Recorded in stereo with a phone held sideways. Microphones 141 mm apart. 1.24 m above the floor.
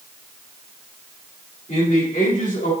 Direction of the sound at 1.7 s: 65° left (ahead or behind).